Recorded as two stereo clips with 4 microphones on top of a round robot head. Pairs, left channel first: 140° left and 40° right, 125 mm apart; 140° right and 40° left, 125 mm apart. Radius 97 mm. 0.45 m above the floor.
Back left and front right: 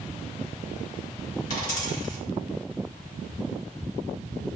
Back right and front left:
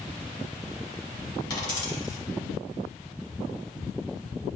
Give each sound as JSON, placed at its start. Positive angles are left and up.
{"t": 1.5, "sound": "a dropped coin", "azimuth_deg": 160, "distance_m": 1.9}